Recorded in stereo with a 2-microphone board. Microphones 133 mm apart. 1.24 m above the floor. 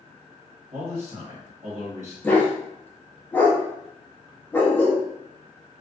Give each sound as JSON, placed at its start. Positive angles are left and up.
{"t": 0.7, "sound": "a man speaking", "side_deg": -45, "distance_m": 1.1}
{"t": 2.2, "sound": "a dog barking", "side_deg": 15, "distance_m": 0.6}